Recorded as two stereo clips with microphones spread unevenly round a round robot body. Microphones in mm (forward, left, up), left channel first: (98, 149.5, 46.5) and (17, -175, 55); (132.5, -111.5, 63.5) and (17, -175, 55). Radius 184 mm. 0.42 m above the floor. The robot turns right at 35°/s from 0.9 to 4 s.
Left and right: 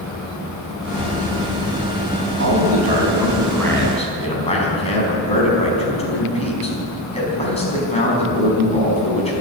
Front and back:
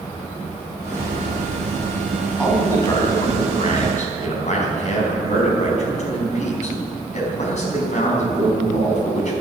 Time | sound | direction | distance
2.4 | a man speaking | 50° right | 4.5 m